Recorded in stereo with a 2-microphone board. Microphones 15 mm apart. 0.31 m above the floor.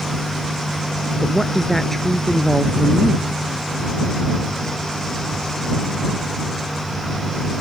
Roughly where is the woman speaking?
Centre.